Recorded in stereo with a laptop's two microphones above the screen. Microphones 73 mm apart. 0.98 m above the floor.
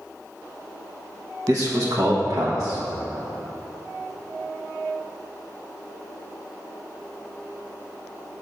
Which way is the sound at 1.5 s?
55° right (ahead or behind).